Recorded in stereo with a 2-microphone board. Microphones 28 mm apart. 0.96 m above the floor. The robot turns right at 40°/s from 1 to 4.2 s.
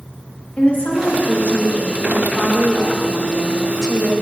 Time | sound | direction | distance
0.6 | a woman speaking | 75° left | 1.0 m